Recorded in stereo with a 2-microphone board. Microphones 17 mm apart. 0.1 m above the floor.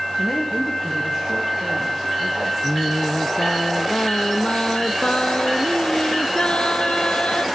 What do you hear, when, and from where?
0.2 s a woman speaking: 20° right (ahead or behind), 6.5 m; by 2.5 s 40° right (ahead or behind), 6 m
2.6 s singing: 75° left (ahead or behind), 1.0 m